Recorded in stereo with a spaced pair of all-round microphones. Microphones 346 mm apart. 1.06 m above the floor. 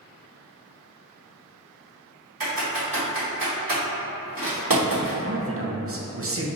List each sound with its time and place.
2.4 s typing on a keyboard: 70° right (ahead or behind), 2.0 m
5.2 s a man speaking: 40° right (ahead or behind), 0.5 m